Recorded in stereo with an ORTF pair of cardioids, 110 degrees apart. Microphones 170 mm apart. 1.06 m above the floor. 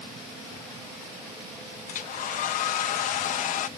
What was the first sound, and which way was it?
A hair dryer, 50° left.